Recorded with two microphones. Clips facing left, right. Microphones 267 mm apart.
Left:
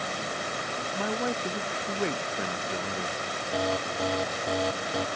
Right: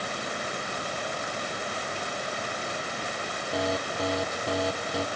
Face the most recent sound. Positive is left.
turn(degrees=0)  # may be behind; listen again after turning